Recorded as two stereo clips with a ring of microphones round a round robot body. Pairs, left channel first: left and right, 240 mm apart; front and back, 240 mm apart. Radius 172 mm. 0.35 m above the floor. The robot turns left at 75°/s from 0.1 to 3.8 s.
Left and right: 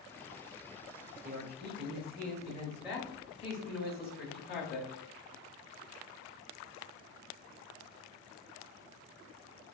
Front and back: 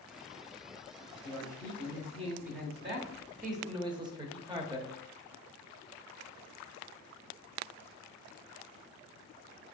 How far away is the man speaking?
About 1.0 m.